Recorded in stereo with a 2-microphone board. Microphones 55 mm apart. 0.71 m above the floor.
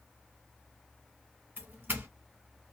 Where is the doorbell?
35° right (ahead or behind), 1.0 m.